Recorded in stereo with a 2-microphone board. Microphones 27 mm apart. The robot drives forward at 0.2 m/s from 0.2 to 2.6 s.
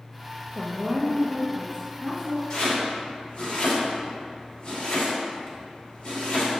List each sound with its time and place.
0.6 s a woman speaking: 45° right (ahead or behind), 0.8 m; by 2.4 s 30° right (ahead or behind), 1.1 m
2.5 s chopping: 25° left (ahead or behind), 2.5 m